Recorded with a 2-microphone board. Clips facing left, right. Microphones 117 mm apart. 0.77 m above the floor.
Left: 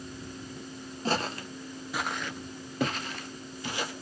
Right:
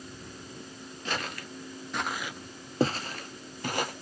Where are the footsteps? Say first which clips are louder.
Left 5 dB; 35° left (ahead or behind), 0.9 m; by 3.9 s 55° right (ahead or behind), 1.3 m.